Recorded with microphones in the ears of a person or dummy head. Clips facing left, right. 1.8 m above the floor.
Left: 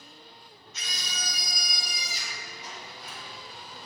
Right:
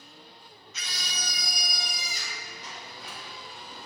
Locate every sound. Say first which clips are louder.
0.7 s a scream: even; 65° right (ahead or behind), 1.1 m; by 2.4 s 40° right (ahead or behind), 1.7 m
2.6 s a sliding door: even; 65° right (ahead or behind), 3 m